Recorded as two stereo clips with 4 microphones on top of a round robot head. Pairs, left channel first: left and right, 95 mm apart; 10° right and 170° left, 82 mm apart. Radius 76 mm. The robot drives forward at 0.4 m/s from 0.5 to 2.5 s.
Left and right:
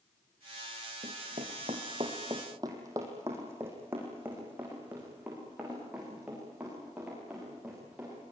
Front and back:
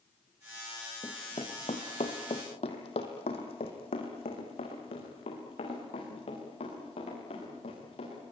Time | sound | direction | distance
1.0 | running footsteps | 65° right | 1.7 m